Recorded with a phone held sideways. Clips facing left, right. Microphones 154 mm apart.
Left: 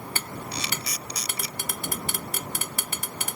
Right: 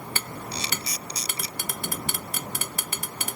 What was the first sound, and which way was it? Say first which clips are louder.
A camera shutter: even; 30° right (ahead or behind).